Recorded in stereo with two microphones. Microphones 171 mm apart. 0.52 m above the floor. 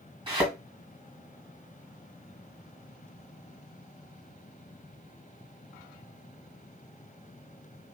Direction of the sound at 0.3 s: 30° right (ahead or behind).